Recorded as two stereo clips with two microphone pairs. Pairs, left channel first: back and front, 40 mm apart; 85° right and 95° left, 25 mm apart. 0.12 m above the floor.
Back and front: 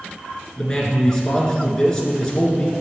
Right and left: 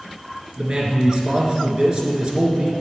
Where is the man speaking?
115° left, 1.4 m.